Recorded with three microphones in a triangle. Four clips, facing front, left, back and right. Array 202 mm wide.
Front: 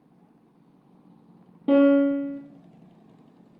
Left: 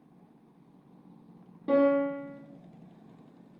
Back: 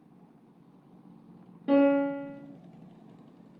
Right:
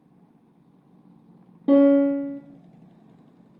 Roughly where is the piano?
Right.